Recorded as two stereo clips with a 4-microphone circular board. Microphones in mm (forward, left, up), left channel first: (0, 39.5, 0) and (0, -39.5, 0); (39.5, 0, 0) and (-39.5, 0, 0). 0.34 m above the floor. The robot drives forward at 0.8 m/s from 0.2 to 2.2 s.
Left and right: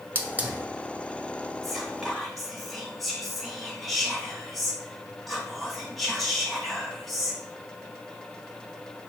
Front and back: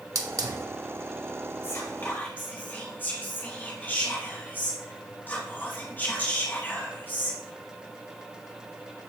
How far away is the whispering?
About 1.8 m.